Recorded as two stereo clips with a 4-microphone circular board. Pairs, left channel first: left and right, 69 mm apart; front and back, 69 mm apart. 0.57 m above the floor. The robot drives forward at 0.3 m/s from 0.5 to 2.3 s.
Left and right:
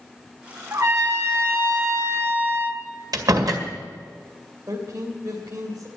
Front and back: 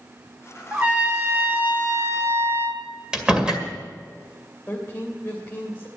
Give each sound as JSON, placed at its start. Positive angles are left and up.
{"t": 0.7, "sound": "a trumpet", "azimuth_deg": -115, "distance_m": 1.2}
{"t": 3.1, "sound": "a door slam", "azimuth_deg": -100, "distance_m": 2.0}
{"t": 4.7, "sound": "a man speaking", "azimuth_deg": -65, "distance_m": 2.5}